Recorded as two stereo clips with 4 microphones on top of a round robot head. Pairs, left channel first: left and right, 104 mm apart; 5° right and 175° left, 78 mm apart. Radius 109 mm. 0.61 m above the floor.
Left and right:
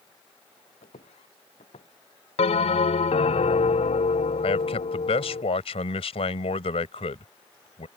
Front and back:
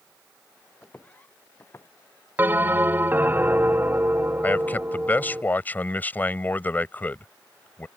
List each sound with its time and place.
0.8 s footsteps: 70° left; by 1.9 s 55° left
2.4 s a bell: 110° left
4.4 s a man speaking: 60° left